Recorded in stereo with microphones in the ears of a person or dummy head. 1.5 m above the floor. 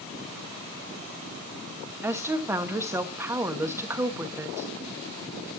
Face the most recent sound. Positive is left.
turn(degrees=-20)  # may be behind; listen again after turning